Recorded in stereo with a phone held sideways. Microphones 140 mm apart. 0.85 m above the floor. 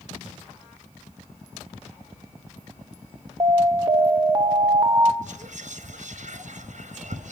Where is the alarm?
35° right (ahead or behind), 0.8 m.